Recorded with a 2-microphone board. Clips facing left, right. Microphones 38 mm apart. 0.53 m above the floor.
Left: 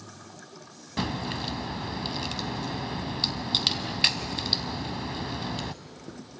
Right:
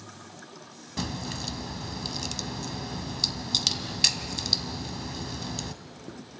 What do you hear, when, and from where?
1.0 s a crack: 25° left (ahead or behind), 0.6 m